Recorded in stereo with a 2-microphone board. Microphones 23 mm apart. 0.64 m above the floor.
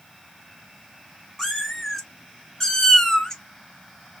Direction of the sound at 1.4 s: 10° left (ahead or behind).